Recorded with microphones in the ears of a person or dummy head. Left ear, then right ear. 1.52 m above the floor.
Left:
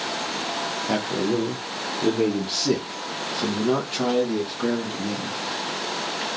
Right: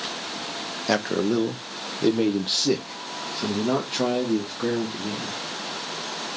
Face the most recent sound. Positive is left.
turn(degrees=15)  # may be behind; listen again after turning